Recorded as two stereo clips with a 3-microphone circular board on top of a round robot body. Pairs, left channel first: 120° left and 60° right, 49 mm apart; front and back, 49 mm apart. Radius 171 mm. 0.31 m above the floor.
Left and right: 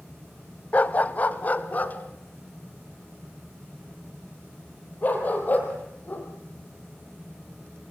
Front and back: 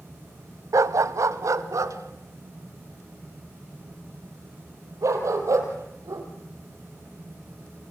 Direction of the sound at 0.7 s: Straight behind.